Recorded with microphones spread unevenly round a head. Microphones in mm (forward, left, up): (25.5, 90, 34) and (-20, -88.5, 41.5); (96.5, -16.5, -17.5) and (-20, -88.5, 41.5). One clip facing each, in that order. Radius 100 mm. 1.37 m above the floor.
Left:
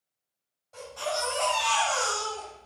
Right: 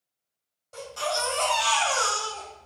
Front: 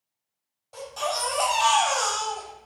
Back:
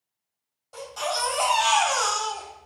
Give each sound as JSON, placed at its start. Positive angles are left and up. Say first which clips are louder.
{"t": 0.7, "sound": "a baby crying", "louder": "right 2 dB, even", "azimuth_deg": -60, "distance_m": 3.0}